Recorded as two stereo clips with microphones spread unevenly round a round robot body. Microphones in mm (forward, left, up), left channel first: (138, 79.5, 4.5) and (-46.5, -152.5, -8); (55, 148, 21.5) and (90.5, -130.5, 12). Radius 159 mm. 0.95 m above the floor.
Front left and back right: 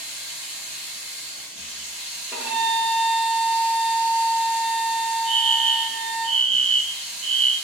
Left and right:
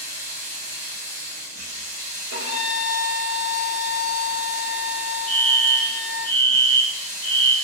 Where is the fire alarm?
135° right, 1.1 m.